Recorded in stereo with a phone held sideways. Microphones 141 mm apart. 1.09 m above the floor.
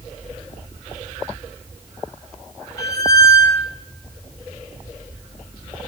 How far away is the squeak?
About 1.6 m.